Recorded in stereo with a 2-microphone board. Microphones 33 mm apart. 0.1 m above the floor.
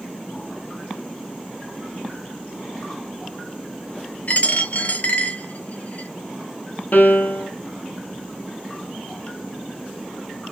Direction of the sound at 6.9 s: 65° left (ahead or behind).